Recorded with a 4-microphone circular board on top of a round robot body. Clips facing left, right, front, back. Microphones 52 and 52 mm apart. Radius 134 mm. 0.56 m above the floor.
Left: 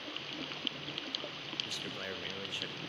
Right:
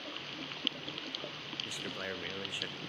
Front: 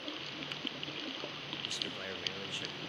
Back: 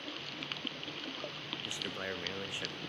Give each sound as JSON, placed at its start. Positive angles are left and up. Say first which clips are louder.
{"t": 1.6, "sound": "a man speaking", "louder": "right 1 dB, back 3 dB", "azimuth_deg": -145, "distance_m": 0.7}